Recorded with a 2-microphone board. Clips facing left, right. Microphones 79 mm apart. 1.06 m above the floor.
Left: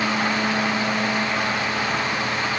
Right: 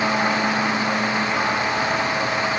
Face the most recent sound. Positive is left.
No sound to turn to.